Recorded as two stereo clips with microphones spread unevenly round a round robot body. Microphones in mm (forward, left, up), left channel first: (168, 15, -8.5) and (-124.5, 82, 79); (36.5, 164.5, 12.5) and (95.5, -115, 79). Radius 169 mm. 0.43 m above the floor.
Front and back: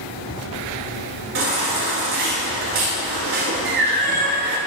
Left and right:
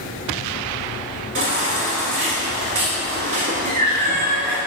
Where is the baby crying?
145° right, 2 m.